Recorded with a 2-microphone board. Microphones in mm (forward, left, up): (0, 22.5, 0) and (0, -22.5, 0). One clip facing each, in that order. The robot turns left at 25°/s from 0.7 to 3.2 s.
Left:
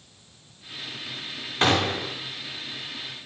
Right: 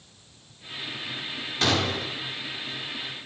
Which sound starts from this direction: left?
A gunshot, at 1.6 s.